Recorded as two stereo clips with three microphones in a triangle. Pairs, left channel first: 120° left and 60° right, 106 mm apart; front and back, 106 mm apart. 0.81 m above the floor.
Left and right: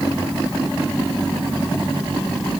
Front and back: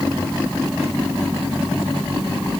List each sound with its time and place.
Only background noise.